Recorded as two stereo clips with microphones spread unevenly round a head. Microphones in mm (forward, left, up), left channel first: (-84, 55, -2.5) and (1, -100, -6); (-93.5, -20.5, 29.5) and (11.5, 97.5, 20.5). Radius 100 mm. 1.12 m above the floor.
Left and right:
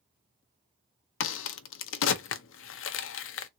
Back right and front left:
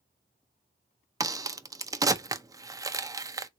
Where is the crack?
120° left, 0.5 m.